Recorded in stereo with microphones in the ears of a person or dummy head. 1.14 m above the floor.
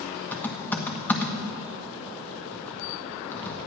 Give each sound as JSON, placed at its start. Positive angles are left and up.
{"t": 0.3, "sound": "typing on a keyboard", "side_deg": 15, "distance_m": 1.4}